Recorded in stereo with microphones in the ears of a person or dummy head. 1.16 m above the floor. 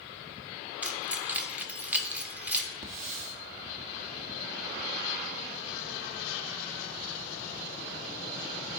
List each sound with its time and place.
0.8 s keys jangling: 10° right (ahead or behind), 0.7 m
2.8 s a hiss: 45° right (ahead or behind), 1.0 m